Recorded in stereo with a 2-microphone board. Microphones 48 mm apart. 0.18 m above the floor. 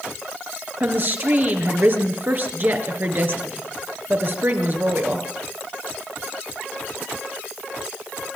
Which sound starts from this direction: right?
A woman speaking, at 0.8 s.